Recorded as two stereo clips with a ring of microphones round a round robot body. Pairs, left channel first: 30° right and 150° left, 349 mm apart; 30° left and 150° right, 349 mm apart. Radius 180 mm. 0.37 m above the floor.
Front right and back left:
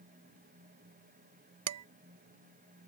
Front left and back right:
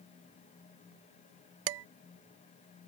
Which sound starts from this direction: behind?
Dishes clattering, at 1.7 s.